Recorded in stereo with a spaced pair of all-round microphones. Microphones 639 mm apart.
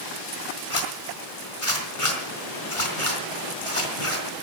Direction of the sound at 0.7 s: 55° left (ahead or behind).